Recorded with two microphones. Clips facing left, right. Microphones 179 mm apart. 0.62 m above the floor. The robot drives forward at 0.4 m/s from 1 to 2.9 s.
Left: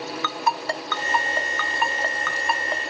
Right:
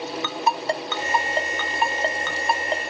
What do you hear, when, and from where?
0.2 s a ringtone: 20° right (ahead or behind), 0.7 m; by 2.8 s 25° right (ahead or behind), 0.6 m